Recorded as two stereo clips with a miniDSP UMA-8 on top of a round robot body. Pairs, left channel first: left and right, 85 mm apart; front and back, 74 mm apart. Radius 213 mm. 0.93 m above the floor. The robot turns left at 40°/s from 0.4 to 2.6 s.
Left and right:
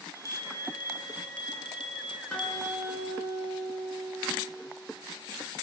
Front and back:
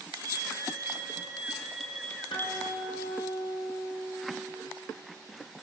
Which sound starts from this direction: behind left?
A bell, at 0.1 s.